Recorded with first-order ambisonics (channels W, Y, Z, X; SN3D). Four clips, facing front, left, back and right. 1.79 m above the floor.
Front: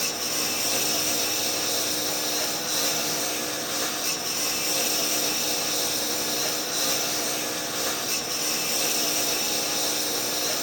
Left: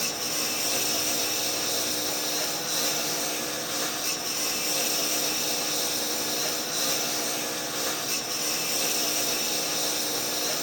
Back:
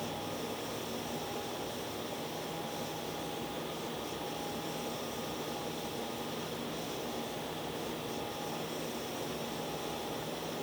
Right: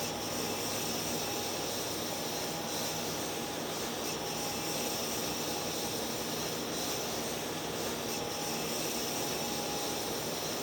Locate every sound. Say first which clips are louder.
0.0 s a lawn mower: left 6 dB, front 11 dB; 35° left